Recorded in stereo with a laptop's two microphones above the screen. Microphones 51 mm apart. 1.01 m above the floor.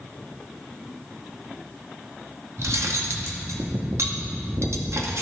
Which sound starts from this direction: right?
Cutlery clinking, at 2.6 s.